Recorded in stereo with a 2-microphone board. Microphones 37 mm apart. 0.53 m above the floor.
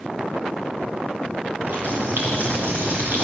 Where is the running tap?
65° right (ahead or behind), 8 m.